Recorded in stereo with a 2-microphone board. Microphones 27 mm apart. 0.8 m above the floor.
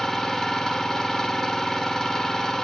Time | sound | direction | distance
0.0 | an engine running | 25° left (ahead or behind) | 2.5 m